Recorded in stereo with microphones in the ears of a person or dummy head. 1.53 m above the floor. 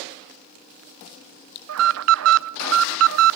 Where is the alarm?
70° right (ahead or behind), 0.6 m.